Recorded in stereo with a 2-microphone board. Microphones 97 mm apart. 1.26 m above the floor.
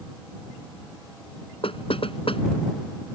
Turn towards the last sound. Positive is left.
turn(degrees=70)  # may be behind; listen again after turning